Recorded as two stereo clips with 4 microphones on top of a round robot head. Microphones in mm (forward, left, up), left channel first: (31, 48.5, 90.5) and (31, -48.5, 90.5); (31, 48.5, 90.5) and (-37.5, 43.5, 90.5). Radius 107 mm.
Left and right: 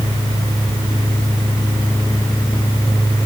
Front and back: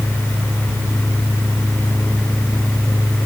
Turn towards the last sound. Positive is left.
No sound to turn to.